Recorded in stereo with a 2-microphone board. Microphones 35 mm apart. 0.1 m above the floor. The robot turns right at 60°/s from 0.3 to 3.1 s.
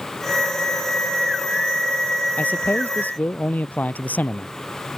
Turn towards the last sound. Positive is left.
turn(degrees=105)